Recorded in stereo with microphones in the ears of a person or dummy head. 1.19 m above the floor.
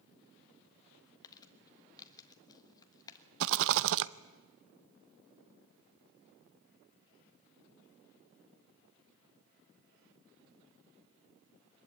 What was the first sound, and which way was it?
Crumpling, 25° left (ahead or behind).